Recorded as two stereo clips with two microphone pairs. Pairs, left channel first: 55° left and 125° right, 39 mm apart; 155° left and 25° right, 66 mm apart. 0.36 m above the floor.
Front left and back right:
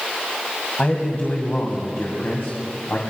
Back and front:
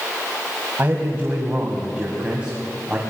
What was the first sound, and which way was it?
A man speaking, 30° left.